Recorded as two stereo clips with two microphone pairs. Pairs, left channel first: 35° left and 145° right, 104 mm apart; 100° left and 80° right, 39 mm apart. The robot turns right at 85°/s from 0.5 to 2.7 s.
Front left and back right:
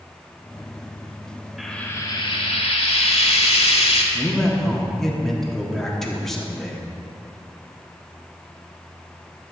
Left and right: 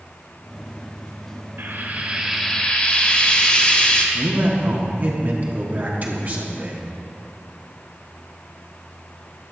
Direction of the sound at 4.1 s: 50° right.